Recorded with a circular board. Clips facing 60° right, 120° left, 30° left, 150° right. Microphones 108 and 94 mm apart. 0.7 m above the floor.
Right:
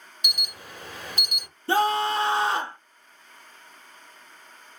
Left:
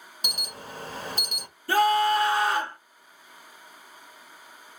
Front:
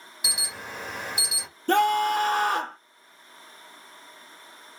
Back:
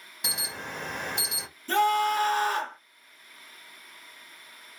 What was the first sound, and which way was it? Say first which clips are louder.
An alarm: left 1 dB, even; 115° left.